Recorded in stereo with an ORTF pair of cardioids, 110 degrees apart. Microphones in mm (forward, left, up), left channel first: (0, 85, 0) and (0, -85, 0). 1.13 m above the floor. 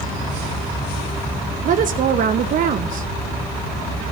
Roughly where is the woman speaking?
Ahead right.